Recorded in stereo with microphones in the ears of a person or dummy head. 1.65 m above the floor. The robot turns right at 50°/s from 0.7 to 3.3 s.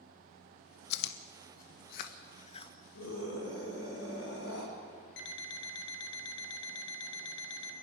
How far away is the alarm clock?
About 2.5 m.